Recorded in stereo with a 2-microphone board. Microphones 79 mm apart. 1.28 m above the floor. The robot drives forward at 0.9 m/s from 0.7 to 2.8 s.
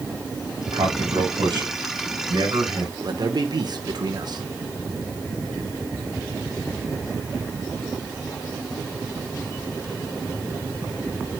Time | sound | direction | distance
0.7 | a man speaking | 80° right | 6 m
3.0 | a man speaking | 60° right (ahead or behind) | 1.4 m